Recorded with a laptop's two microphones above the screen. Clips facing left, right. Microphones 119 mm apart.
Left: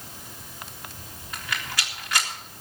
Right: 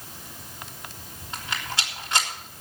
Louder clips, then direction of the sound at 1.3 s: Right 1 dB; 25° right (ahead or behind).